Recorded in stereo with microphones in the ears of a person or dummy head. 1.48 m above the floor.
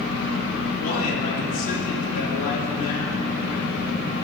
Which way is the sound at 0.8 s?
50° left (ahead or behind).